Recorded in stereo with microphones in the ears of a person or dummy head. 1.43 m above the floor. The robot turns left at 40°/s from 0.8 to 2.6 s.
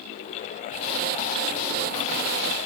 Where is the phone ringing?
I don't hear a phone ringing.